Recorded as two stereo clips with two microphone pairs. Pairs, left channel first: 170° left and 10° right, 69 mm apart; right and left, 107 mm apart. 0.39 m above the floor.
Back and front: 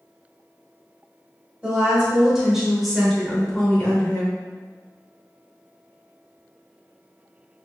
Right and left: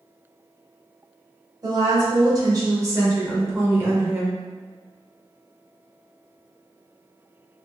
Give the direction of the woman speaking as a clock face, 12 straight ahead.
10 o'clock.